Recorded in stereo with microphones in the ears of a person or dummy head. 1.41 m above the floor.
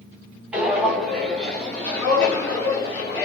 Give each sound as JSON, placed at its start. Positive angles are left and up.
{"t": 0.5, "sound": "footsteps", "side_deg": -10, "distance_m": 1.7}